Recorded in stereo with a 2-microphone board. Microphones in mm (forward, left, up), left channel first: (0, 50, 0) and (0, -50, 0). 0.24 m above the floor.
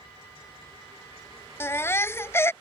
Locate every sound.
1.6 s a baby crying: 25° left (ahead or behind)